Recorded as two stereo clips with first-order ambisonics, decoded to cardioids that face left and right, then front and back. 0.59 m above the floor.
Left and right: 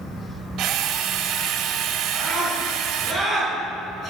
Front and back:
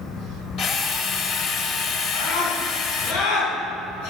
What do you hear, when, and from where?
0.6 s a drill: 45° right, 2 m
2.1 s a scream: 5° left, 6.5 m